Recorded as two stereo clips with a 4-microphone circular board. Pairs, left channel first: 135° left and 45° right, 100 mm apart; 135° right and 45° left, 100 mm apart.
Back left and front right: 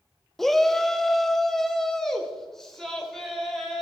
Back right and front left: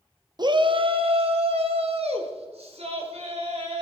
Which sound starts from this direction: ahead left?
A shout, at 0.4 s.